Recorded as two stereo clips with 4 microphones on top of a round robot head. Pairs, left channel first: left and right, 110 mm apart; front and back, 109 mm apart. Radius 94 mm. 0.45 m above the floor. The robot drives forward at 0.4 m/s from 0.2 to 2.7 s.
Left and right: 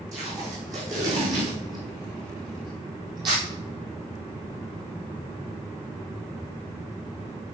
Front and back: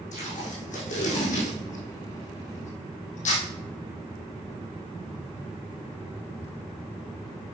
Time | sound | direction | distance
0.1 | tape being pulled | 20° right | 4.5 m